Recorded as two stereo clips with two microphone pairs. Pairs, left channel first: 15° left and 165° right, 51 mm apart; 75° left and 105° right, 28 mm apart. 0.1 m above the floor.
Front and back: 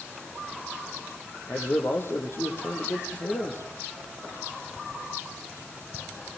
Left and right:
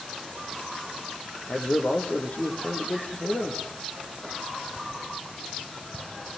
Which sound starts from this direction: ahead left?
A man speaking, at 1.5 s.